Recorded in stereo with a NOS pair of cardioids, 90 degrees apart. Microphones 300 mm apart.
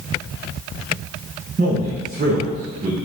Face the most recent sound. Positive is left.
turn(degrees=-25)